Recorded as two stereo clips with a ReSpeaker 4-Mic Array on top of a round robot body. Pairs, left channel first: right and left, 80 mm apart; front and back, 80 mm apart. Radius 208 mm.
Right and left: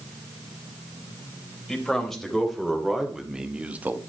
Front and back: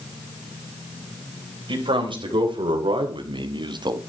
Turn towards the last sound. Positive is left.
turn(degrees=155)